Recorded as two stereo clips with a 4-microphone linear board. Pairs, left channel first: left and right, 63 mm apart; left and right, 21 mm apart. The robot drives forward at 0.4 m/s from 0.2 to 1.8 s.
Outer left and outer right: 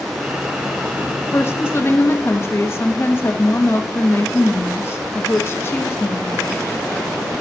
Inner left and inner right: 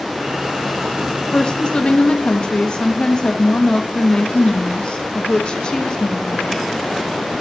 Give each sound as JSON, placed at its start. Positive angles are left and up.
{"t": 1.3, "sound": "a woman speaking", "side_deg": 40, "distance_m": 1.2}